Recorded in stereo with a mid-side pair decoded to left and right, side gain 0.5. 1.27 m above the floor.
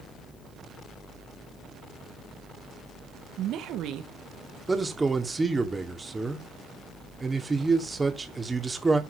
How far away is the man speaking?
About 2.5 m.